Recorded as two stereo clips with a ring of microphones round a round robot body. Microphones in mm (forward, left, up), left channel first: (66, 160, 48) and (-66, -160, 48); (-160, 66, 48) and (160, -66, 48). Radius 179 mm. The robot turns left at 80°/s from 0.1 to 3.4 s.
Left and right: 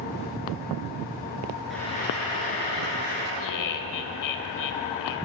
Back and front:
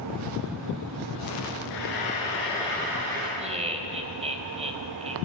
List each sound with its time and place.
1.7 s frying: 160° left, 9 m; by 3.3 s 30° left, 9 m
3.4 s laughter: 50° left, 3 m